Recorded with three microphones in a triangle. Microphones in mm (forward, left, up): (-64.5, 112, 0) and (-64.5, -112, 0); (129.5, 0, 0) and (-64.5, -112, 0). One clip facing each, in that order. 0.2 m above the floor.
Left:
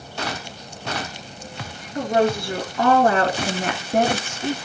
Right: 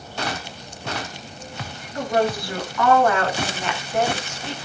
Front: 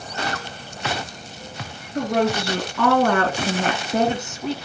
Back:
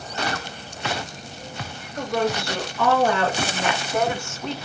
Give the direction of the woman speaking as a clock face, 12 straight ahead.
11 o'clock.